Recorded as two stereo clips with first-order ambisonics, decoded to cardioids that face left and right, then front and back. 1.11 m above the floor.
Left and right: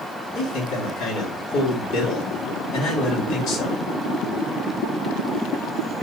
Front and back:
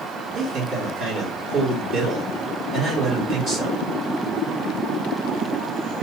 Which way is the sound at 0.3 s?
130° left.